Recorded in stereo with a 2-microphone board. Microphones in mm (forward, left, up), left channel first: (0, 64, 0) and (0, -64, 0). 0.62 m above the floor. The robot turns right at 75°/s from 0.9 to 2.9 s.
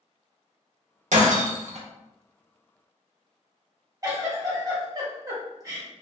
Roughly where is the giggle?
Right.